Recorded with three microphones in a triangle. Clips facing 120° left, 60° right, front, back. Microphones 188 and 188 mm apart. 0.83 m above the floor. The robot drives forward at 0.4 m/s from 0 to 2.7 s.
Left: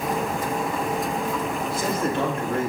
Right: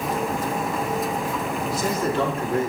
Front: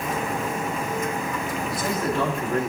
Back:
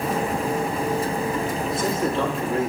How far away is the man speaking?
About 1.4 m.